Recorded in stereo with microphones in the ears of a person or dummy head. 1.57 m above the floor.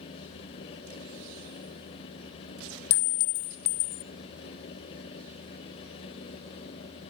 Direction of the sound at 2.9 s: 60° left (ahead or behind).